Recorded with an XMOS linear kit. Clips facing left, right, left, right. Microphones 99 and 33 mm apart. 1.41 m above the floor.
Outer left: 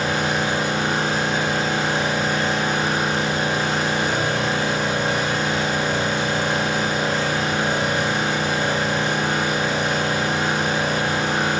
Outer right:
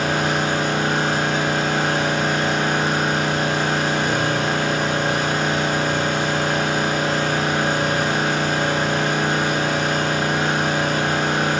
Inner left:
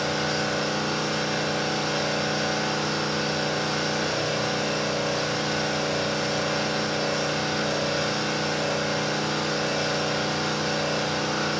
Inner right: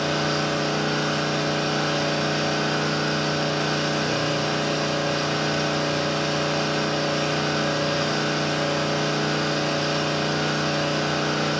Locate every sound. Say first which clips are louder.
0.0 s an engine running: outer right 1 dB, inner right 2 dB; 60° right (ahead or behind), 9.5 m